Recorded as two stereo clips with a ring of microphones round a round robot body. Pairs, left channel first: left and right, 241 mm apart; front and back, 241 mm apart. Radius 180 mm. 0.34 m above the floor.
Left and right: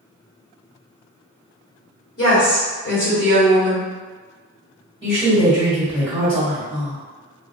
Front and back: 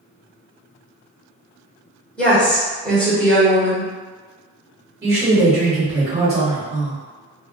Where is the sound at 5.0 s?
Straight behind, 1.6 m.